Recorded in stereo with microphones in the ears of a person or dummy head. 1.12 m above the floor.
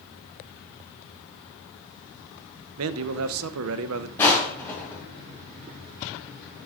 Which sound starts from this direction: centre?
Crushing, at 4.2 s.